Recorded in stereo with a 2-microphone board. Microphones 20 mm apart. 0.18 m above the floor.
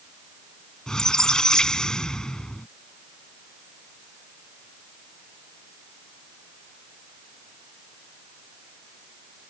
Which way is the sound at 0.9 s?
40° left (ahead or behind).